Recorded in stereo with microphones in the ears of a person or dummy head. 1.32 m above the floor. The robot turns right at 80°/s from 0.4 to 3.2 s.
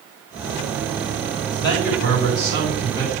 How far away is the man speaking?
About 7 m.